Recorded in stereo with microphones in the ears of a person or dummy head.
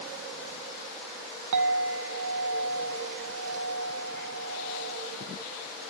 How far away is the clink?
About 0.7 m.